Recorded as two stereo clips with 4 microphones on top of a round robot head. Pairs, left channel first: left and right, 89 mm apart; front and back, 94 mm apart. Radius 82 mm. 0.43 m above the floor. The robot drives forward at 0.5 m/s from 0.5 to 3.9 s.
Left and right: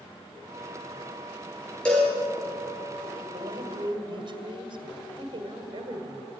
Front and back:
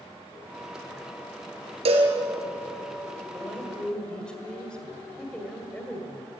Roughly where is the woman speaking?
Right.